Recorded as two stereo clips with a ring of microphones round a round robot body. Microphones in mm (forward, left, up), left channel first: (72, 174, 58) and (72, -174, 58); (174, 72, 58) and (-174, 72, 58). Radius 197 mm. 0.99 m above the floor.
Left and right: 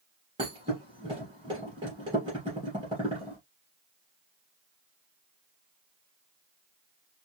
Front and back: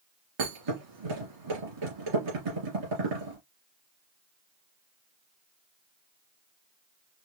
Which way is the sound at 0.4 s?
170° right.